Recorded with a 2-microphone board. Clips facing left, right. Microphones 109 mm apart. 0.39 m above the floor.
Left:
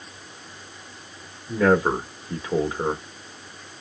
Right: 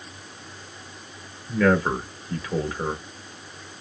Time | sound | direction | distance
1.5 | a man speaking | 20° left (ahead or behind) | 0.9 m